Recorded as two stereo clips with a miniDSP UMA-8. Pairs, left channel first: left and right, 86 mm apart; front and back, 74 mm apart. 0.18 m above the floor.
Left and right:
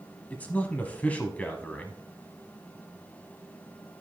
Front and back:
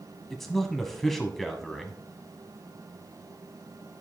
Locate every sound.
0.3 s a man speaking: 75° left, 1.3 m